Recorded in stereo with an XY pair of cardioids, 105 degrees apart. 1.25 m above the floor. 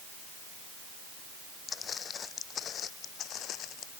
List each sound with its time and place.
1.7 s footsteps: 45° left; by 3.9 s 75° left